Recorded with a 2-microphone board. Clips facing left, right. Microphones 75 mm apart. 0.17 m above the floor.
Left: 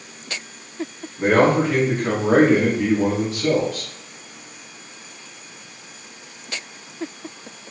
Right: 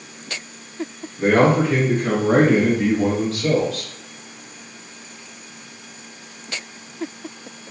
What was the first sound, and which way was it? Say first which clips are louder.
A man speaking: even; 20° left (ahead or behind).